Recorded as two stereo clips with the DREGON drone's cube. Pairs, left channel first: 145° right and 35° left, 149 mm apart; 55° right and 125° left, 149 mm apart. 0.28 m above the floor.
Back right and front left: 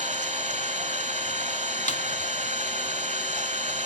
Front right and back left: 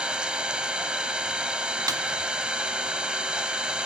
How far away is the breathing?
I don't hear breathing.